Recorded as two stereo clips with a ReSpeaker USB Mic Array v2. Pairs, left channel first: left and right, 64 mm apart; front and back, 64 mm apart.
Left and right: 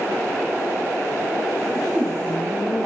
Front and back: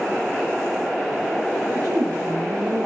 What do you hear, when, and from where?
1.7 s a woman speaking: straight behind, 2.5 m